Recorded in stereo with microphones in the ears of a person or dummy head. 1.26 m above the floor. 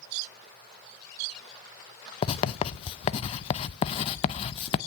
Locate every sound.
2.2 s writing: 35° left (ahead or behind), 0.7 m